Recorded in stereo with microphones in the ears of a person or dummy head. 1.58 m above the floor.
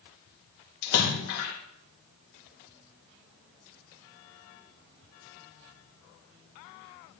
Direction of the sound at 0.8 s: 80° left.